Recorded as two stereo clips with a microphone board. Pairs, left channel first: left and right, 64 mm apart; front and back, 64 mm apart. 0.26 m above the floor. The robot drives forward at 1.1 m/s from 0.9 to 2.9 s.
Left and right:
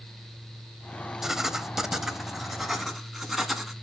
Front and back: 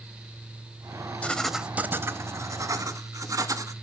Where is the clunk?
I don't hear a clunk.